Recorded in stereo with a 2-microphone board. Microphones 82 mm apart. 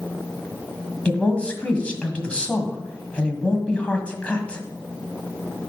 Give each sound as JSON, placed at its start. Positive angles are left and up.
{"t": 1.1, "sound": "a woman speaking", "side_deg": 15, "distance_m": 1.5}